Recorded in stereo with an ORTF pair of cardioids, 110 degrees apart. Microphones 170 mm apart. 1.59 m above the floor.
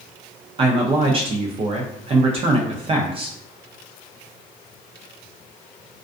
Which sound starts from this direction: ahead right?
A man speaking, at 0.6 s.